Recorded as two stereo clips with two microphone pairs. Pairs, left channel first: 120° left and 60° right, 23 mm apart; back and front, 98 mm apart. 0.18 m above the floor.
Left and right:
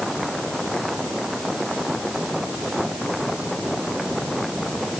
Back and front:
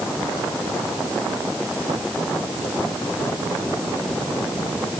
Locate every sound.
Only background noise.